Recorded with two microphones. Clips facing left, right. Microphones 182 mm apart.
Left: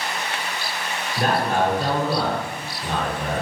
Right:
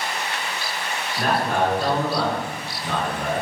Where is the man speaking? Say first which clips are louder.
Left 1 dB; 40° left (ahead or behind), 1.5 m.